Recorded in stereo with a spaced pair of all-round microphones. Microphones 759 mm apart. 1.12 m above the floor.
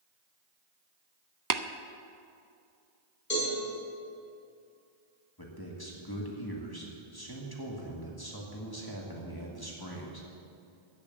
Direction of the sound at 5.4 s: 30° left (ahead or behind).